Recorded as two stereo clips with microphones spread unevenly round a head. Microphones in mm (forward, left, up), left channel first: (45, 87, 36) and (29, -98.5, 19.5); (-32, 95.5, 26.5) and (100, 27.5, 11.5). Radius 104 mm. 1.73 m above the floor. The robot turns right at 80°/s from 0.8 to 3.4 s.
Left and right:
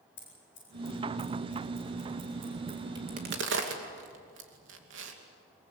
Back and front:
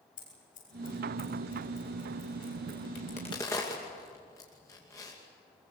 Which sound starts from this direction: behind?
A crack, at 3.0 s.